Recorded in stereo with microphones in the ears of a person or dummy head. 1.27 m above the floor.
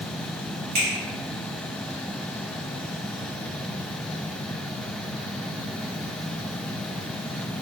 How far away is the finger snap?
About 1.4 m.